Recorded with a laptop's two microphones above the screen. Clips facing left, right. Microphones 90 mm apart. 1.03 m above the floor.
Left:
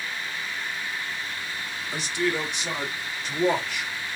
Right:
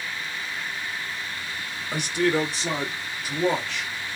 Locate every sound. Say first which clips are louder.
1.9 s a man speaking: right 4 dB; 55° right (ahead or behind), 0.9 m; by 4.2 s 20° left (ahead or behind), 1.1 m